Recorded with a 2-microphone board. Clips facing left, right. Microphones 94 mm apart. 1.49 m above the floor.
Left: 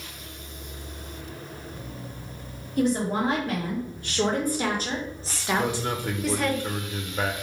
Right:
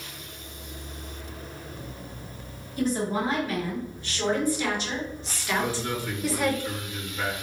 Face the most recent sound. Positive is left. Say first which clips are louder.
# even
turn(degrees=55)  # may be behind; listen again after turning